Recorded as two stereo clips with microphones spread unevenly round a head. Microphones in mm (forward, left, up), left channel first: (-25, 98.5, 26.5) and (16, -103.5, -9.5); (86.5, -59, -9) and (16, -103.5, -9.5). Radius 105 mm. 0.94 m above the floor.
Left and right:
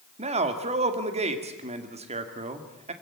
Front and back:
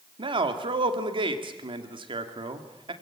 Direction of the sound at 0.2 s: 135° right.